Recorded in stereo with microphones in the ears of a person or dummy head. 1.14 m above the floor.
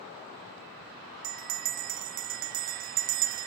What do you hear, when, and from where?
1.2 s a bell: 40° right (ahead or behind), 0.6 m